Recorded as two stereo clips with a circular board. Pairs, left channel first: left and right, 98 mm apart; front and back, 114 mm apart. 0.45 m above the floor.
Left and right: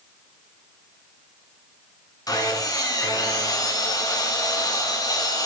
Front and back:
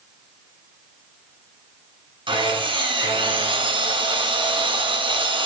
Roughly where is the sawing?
Behind left.